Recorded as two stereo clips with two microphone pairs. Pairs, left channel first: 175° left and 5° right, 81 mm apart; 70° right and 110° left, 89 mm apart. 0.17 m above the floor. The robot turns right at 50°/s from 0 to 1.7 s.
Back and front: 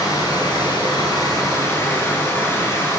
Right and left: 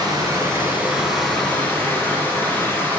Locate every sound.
0.0 s running water: 140° left, 1.3 m; by 3.0 s 135° right, 1.3 m